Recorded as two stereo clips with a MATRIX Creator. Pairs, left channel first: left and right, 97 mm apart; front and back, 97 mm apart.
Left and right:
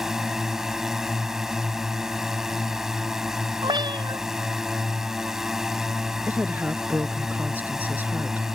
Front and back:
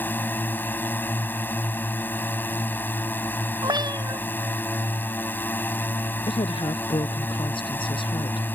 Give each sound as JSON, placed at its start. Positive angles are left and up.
{"t": 0.0, "sound": "a drone", "azimuth_deg": -15}
{"t": 3.6, "sound": "a cat meowing", "azimuth_deg": -130}
{"t": 6.3, "sound": "a woman speaking", "azimuth_deg": -20}